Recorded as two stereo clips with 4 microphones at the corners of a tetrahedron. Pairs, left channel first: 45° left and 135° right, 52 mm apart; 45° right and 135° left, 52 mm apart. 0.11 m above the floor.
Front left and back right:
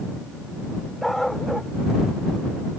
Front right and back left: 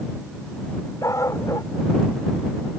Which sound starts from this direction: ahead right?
A dog barking, at 1.0 s.